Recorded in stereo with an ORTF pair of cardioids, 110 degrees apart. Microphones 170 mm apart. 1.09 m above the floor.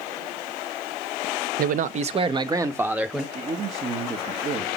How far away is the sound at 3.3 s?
About 1.4 m.